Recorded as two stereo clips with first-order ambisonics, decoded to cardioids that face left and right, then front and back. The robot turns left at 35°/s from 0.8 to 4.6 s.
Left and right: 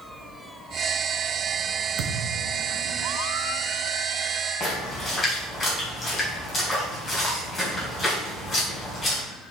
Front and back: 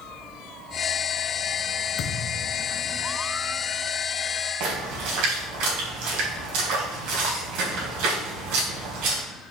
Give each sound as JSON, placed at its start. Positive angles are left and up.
{"t": 2.0, "sound": "a thud", "azimuth_deg": -55, "distance_m": 1.3}
{"t": 4.6, "sound": "a splash", "azimuth_deg": 160, "distance_m": 3.5}